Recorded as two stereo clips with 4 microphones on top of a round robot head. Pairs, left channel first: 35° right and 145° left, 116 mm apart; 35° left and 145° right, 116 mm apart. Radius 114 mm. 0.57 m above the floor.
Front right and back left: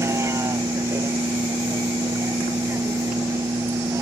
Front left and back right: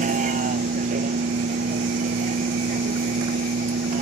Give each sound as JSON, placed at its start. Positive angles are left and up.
{"t": 0.0, "sound": "a vehicle", "azimuth_deg": -150}